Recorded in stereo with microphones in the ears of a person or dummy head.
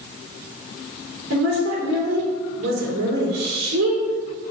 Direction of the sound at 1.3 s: 80° right.